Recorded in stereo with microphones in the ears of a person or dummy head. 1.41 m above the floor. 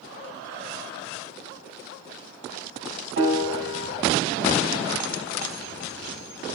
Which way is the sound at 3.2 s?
60° right (ahead or behind).